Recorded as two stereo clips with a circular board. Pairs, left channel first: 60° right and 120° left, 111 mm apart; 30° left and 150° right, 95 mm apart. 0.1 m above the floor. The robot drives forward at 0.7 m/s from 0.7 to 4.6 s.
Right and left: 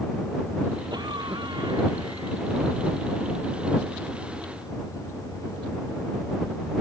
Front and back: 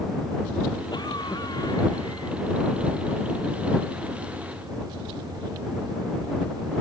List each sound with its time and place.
0.9 s a cough: 70° left; by 2.4 s 75° left